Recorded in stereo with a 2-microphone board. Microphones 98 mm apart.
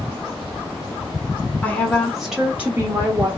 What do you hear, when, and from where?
1.6 s a woman speaking: 15° left (ahead or behind), 1.1 m; by 3.3 s 30° right (ahead or behind), 1.1 m